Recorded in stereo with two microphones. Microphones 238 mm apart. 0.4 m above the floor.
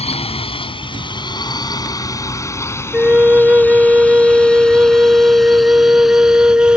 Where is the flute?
5° right (ahead or behind).